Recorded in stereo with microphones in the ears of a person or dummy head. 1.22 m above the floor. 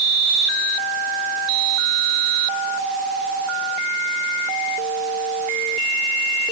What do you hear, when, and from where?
Only background noise.